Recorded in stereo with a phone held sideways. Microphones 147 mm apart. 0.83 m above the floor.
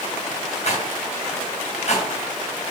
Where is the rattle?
50° left (ahead or behind), 3 m.